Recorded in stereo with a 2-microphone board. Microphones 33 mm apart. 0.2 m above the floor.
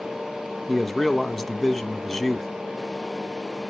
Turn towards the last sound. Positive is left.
turn(degrees=0)  # may be behind; listen again after turning